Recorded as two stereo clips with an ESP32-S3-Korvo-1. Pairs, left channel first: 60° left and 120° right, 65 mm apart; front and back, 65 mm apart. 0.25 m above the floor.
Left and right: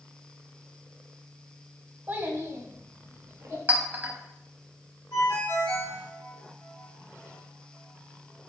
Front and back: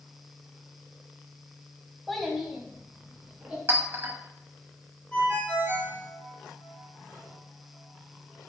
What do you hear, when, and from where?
2.1 s a child speaking: 85° right, 0.8 m; by 3.6 s 105° right, 1.9 m
3.7 s a clink: 165° right, 0.8 m
5.1 s a ringtone: 70° left, 1.6 m